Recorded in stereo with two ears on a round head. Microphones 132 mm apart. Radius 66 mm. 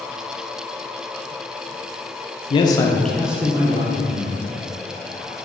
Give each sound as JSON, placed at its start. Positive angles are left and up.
{"t": 2.5, "sound": "a man speaking", "side_deg": 40, "distance_m": 0.5}